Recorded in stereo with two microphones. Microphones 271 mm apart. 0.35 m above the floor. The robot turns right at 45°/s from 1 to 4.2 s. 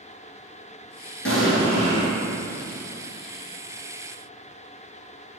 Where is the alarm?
I don't hear an alarm.